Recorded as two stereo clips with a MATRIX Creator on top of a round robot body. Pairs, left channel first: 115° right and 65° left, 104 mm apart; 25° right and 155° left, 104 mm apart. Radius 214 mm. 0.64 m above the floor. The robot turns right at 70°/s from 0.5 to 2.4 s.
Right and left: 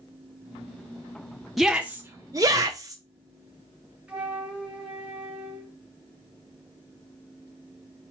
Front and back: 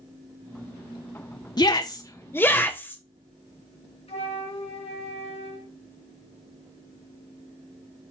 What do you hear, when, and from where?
1.6 s a shout: 25° right, 1.1 m; by 3.0 s 35° left, 1.1 m
4.1 s a flute: 15° right, 2.0 m